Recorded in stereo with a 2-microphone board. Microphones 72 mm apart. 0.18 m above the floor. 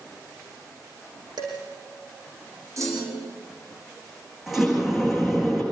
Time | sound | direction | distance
1.4 | dishes clattering | 75° right (ahead or behind) | 6 m
2.8 | a clunk | 45° right (ahead or behind) | 5.5 m
4.5 | a sliding door | 5° right (ahead or behind) | 10 m